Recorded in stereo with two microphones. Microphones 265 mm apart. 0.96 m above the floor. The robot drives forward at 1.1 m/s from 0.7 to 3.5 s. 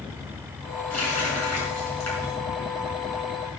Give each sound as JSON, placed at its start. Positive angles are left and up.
{"t": 0.9, "sound": "a running tap", "side_deg": 75, "distance_m": 7.5}